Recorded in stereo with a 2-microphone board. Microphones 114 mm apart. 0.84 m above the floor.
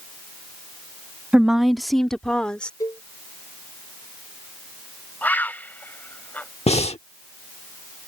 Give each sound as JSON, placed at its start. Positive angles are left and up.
{"t": 1.3, "sound": "a woman speaking", "side_deg": -10}
{"t": 2.8, "sound": "a cowbell", "side_deg": 30}
{"t": 5.2, "sound": "a bird", "side_deg": 15}
{"t": 6.7, "sound": "breathing", "side_deg": 60}